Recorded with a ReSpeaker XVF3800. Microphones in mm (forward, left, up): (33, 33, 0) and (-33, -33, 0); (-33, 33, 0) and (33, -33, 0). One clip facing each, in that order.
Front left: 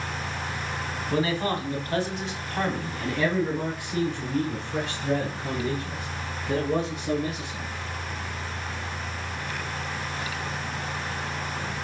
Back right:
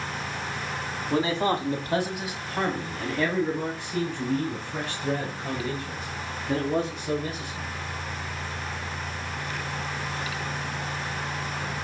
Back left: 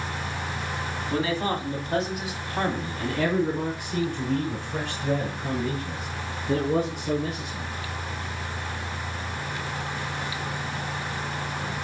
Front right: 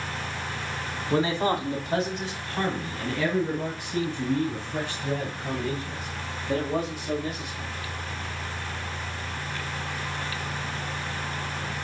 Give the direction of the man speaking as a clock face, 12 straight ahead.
3 o'clock.